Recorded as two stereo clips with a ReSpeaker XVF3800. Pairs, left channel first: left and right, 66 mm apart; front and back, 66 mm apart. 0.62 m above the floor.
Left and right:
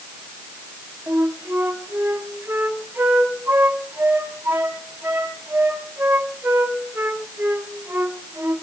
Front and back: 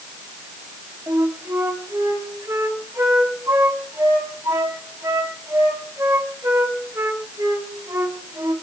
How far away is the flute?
About 3 m.